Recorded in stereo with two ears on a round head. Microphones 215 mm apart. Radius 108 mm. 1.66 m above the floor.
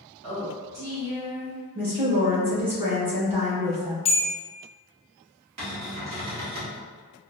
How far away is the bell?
About 0.7 m.